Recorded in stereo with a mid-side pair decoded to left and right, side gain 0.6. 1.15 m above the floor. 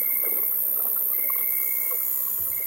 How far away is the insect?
About 0.8 m.